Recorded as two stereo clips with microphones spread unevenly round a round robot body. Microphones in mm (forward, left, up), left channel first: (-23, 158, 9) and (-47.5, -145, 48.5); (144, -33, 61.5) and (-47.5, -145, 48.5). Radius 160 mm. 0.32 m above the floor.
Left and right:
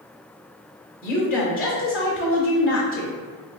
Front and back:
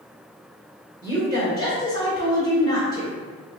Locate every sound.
1.0 s a woman speaking: 100° left, 0.9 m